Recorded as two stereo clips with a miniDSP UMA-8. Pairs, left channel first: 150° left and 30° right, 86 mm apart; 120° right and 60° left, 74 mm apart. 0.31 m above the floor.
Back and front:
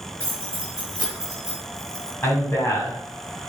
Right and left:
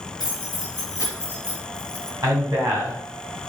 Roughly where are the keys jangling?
Left.